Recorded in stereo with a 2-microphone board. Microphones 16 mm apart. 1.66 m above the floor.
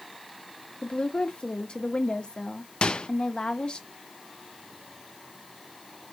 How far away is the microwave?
About 0.5 m.